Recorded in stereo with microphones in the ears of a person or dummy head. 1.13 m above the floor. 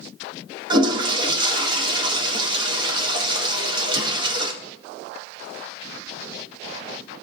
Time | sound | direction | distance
0.7 | a toilet flushing | 30° right (ahead or behind) | 0.7 m